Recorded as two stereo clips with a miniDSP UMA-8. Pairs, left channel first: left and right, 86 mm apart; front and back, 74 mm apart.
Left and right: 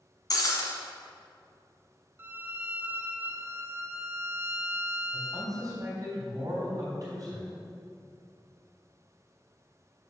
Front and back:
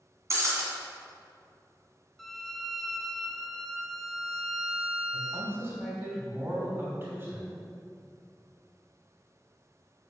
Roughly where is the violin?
Right.